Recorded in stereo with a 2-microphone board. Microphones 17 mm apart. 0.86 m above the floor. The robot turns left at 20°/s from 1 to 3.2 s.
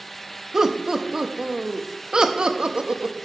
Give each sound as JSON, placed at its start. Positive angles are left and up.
{"t": 0.5, "sound": "laughter", "side_deg": -35, "distance_m": 0.8}